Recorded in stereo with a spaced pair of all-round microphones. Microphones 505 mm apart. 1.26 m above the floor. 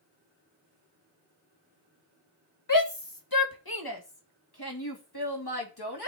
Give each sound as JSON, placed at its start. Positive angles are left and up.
{"t": 2.7, "sound": "a shout", "side_deg": 40, "distance_m": 1.5}